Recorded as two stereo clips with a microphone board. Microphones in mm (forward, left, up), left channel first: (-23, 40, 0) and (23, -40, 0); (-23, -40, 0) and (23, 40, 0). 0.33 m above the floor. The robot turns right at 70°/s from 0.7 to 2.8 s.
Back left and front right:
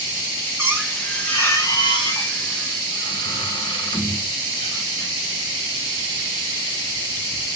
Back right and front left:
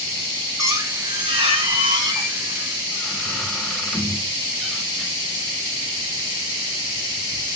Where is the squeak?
5° left, 1.2 m; by 5.1 s 150° left, 1.2 m.